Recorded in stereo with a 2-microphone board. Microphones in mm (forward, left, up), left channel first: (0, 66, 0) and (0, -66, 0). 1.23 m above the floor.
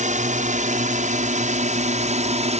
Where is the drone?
70° right (ahead or behind); by 2.6 s 60° right (ahead or behind).